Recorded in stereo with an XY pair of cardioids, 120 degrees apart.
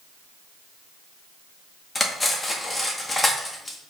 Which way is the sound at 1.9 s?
20° left.